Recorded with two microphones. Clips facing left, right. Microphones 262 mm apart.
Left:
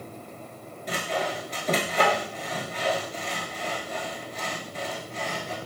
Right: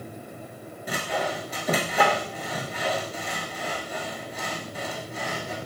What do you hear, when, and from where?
0.9 s sawing: 10° right (ahead or behind), 0.6 m